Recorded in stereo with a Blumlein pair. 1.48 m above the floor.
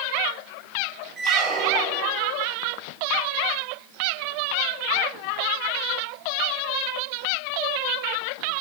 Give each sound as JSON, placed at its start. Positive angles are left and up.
{"t": 1.2, "sound": "a squeak", "azimuth_deg": -20, "distance_m": 1.6}